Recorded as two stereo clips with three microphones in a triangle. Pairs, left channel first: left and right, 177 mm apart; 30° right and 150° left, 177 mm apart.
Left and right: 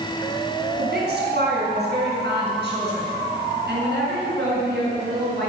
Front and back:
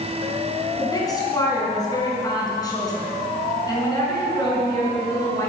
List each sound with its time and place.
0.8 s a woman speaking: 100° right, 3.5 m